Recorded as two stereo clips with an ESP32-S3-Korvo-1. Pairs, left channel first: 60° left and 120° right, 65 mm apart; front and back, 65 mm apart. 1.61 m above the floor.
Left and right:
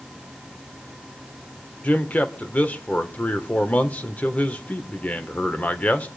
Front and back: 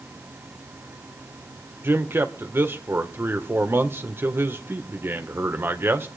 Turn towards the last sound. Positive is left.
turn(degrees=130)